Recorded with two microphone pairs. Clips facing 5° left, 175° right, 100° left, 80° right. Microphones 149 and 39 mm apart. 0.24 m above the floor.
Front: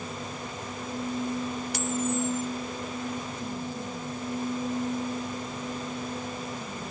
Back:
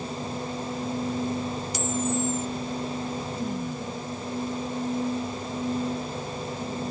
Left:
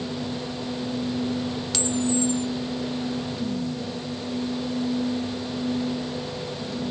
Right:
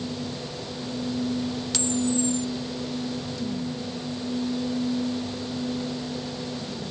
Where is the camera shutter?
15° left, 0.9 m.